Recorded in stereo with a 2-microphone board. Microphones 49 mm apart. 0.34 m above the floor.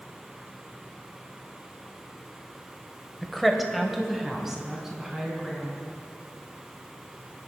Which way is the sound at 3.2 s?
5° left (ahead or behind).